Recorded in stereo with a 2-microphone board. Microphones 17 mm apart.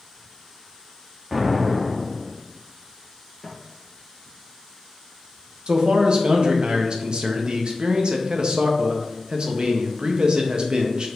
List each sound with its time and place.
1.3 s an explosion: 10° right (ahead or behind), 0.8 m
3.4 s footsteps: 15° left (ahead or behind), 2.0 m
5.7 s a man speaking: 50° right (ahead or behind), 0.8 m